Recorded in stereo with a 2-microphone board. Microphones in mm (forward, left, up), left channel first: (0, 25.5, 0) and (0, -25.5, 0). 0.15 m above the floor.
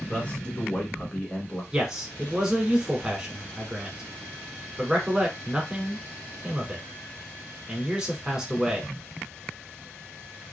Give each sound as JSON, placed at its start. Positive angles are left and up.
{"t": 0.1, "sound": "a man speaking", "side_deg": 25, "distance_m": 1.3}
{"t": 1.7, "sound": "a man speaking", "side_deg": -15, "distance_m": 1.1}